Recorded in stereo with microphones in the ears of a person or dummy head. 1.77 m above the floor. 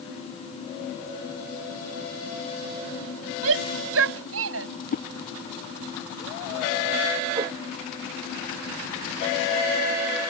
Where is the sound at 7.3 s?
25° right (ahead or behind).